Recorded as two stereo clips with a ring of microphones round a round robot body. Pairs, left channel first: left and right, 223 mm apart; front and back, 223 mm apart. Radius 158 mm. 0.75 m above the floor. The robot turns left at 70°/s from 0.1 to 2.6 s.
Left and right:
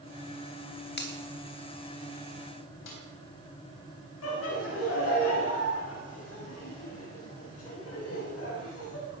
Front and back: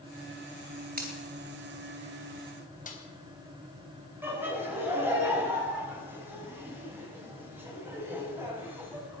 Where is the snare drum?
55° left, 4 m.